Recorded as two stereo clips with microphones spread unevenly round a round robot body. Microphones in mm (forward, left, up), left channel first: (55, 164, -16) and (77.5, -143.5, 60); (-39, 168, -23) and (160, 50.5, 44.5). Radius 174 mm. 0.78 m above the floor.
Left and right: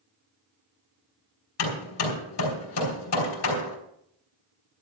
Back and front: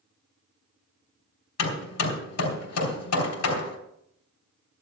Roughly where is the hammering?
Behind left.